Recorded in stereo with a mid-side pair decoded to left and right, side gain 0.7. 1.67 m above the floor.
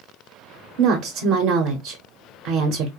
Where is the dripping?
I don't hear dripping.